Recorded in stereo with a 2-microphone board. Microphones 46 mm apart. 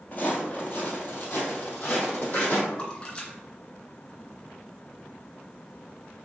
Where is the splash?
25° left (ahead or behind), 1.7 m.